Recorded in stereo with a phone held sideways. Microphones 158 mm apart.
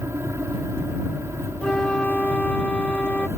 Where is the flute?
5° left (ahead or behind).